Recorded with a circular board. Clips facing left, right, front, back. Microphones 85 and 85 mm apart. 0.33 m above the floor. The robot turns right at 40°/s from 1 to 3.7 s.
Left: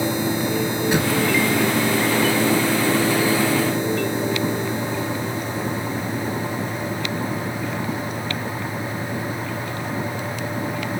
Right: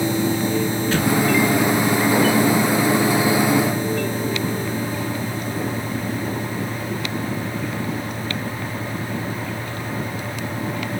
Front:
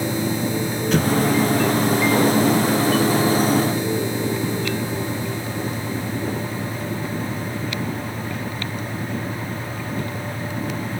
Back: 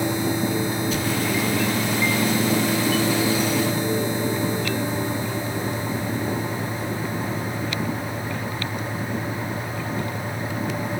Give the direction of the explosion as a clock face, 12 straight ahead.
11 o'clock.